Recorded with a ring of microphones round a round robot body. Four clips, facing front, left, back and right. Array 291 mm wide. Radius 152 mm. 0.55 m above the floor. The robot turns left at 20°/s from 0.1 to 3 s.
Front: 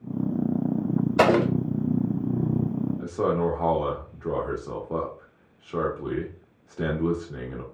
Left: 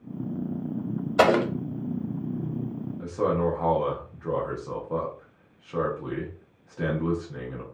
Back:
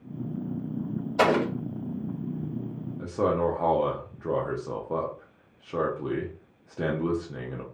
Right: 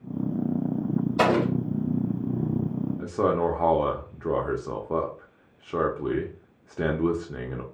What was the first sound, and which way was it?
An explosion, 55° left.